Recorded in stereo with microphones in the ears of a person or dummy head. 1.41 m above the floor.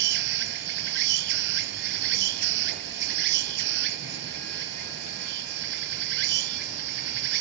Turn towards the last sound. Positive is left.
turn(degrees=-70)  # may be behind; listen again after turning